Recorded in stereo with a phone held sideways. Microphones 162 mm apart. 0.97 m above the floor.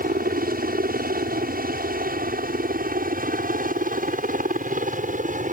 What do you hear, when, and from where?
0.0 s a helicopter: 60° right (ahead or behind); by 5.5 s 50° right (ahead or behind)